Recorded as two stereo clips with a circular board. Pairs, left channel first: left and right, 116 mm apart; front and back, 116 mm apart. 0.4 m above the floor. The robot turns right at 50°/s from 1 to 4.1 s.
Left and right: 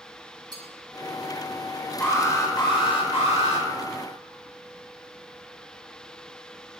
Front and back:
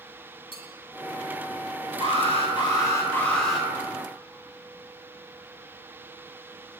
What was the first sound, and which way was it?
A clink, 40° right.